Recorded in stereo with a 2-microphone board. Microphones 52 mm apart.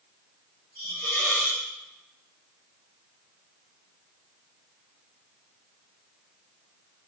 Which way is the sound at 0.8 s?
25° left (ahead or behind).